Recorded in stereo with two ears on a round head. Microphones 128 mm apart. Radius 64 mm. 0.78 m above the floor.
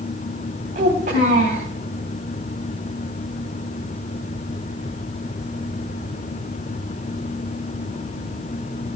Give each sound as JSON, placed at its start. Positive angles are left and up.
{"t": 0.8, "sound": "a child speaking", "side_deg": -55, "distance_m": 4.0}